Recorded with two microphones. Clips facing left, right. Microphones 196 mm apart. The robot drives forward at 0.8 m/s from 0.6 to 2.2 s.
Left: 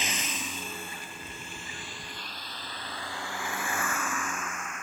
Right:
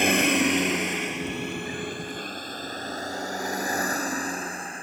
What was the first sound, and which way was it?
A vehicle, 60° right (ahead or behind).